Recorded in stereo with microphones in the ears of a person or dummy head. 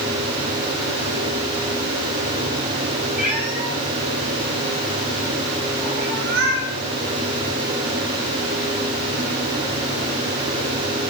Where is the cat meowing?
5° right (ahead or behind), 3 m; by 6.7 s 60° right (ahead or behind), 4.5 m.